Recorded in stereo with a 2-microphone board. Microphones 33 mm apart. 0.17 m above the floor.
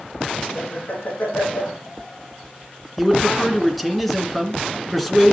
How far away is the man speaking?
About 2.5 m.